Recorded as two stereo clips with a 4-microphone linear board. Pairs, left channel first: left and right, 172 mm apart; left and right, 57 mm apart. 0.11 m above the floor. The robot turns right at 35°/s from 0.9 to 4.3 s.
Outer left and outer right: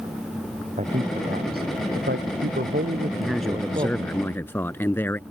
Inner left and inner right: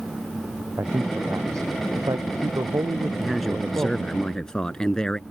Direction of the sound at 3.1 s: 5° right (ahead or behind).